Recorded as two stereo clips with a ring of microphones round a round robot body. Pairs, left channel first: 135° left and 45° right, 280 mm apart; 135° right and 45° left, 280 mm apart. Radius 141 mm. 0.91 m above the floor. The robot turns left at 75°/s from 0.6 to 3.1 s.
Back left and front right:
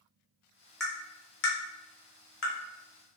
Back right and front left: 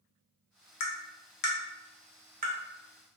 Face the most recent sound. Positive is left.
turn(degrees=50)